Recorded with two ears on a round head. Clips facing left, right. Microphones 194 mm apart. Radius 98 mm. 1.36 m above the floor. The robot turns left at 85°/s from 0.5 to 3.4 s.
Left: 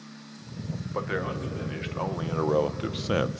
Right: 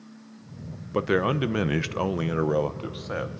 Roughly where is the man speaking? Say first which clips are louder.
Right 8 dB; ahead right.